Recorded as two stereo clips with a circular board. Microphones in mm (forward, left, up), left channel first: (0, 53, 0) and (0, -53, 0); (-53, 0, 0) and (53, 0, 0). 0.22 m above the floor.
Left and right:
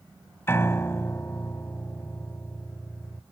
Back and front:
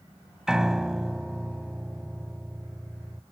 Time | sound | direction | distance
0.5 | a piano | 75° left | ?